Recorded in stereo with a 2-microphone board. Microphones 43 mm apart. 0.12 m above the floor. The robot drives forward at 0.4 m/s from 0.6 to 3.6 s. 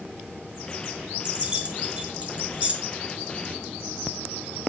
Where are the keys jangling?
25° right (ahead or behind), 1.3 m; by 2.7 s 30° right (ahead or behind), 1.1 m.